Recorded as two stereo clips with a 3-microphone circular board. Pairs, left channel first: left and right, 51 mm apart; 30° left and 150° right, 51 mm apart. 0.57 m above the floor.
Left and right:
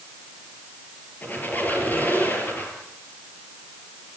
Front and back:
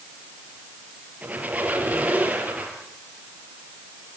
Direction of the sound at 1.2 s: 145° left.